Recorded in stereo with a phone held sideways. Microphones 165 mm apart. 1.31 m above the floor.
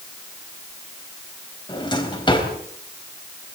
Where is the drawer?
25° left (ahead or behind), 4 m.